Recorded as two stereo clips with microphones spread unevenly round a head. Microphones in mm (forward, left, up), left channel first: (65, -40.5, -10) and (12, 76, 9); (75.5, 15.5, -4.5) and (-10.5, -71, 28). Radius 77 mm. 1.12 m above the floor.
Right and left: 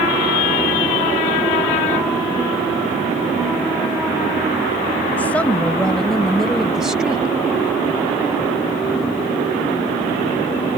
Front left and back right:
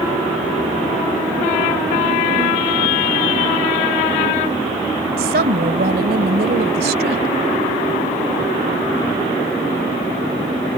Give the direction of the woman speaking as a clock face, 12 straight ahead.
5 o'clock.